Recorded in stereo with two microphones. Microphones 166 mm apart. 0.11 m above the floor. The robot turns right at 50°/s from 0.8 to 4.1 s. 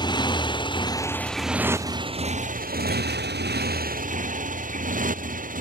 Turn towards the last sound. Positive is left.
turn(degrees=-55)  # may be behind; listen again after turning